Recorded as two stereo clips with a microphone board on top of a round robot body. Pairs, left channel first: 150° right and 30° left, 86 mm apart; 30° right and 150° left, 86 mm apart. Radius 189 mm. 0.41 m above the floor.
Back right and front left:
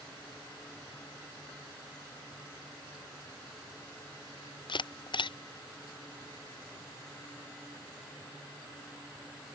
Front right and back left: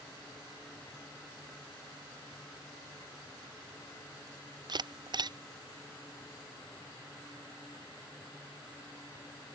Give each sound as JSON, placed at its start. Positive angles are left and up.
{"t": 4.7, "sound": "a camera shutter", "azimuth_deg": -175}